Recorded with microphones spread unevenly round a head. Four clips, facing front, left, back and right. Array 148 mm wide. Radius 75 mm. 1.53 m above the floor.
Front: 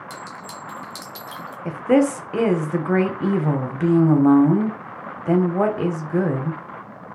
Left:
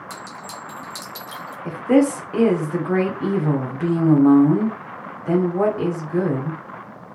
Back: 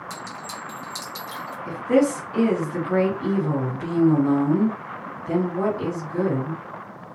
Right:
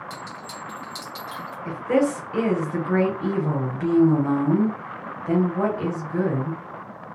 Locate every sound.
0.1 s a clink: 40° left, 1.2 m
1.6 s a woman speaking: 30° left, 0.8 m